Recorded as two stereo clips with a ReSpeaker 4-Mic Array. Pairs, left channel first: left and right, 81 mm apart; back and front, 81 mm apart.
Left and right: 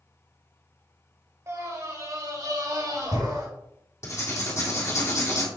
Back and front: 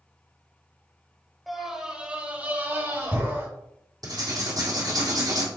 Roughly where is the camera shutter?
No camera shutter in this recording.